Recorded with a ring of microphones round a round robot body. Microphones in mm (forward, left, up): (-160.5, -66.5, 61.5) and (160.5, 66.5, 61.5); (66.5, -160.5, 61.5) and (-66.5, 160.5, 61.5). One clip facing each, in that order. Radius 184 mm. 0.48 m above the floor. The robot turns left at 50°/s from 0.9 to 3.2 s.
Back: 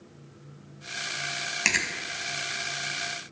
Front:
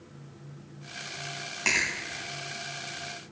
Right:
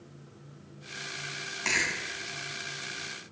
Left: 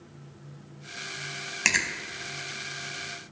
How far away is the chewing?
About 1.8 m.